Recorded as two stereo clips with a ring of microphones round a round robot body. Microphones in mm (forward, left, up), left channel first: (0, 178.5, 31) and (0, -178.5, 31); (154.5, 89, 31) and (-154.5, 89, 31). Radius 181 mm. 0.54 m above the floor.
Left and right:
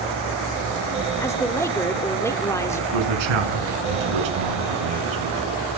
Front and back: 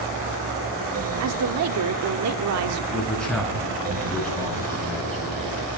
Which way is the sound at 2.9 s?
90° right.